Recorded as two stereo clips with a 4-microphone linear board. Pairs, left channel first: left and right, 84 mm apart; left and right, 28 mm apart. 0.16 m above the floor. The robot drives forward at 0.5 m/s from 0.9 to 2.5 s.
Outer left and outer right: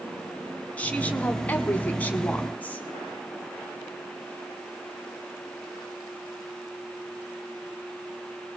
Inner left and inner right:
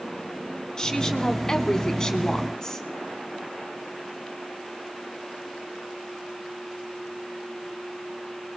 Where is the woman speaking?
20° left (ahead or behind), 1.2 m.